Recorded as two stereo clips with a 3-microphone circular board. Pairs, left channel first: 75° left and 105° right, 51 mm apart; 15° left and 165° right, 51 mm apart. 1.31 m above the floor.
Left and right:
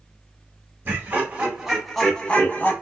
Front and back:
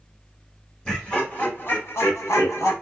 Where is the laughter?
55° right, 1.5 m; by 2.7 s 25° left, 1.1 m.